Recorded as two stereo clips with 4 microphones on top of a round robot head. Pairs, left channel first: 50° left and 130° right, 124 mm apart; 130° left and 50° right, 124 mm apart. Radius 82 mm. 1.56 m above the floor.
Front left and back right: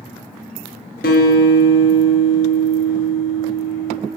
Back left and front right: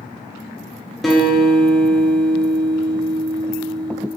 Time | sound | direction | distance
1.0 | a guitar | 45° left | 1.7 m